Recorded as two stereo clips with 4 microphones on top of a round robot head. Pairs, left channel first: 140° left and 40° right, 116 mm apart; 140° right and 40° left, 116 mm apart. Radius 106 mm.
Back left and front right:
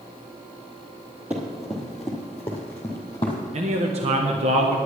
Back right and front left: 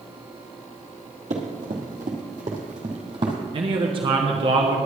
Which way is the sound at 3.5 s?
5° right.